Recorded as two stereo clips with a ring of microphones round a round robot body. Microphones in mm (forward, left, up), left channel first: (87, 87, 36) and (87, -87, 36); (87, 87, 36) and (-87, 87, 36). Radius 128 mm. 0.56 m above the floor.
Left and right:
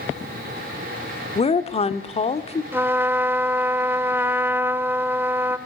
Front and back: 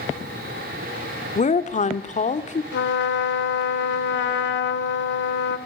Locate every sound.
1.4 s a woman speaking: 40° left, 1.5 m
2.7 s a trumpet: 10° right, 1.4 m